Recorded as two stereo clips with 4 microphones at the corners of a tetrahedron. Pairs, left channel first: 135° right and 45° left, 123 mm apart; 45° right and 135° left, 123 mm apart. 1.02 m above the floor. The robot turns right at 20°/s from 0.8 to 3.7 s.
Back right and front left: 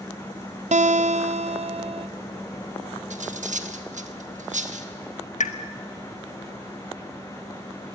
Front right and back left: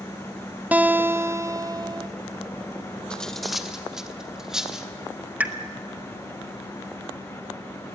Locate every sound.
0.7 s a guitar: 60° left, 0.6 m; by 2.1 s 85° left, 0.6 m
3.1 s cutlery clinking: 40° left, 1.2 m; by 4.9 s 50° left, 1.2 m
5.4 s a pop: 145° right, 1.3 m